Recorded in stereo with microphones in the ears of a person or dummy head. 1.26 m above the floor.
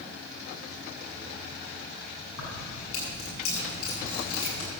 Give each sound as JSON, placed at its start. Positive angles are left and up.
{"t": 2.4, "sound": "keys jangling", "side_deg": 85, "distance_m": 8.0}